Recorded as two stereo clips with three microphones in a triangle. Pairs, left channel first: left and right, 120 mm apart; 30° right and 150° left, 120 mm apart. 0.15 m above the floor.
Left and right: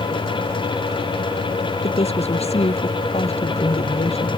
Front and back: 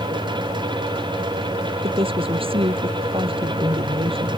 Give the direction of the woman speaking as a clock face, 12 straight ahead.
8 o'clock.